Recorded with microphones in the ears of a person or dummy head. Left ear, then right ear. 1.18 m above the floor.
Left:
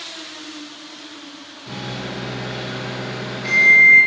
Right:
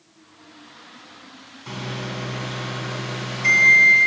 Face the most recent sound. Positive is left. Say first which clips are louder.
# left 1 dB
turn(degrees=-50)  # may be behind; listen again after turning